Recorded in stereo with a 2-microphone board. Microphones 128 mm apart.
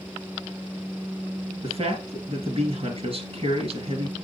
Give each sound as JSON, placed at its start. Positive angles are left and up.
{"t": 1.6, "sound": "a man speaking", "side_deg": -50, "distance_m": 2.5}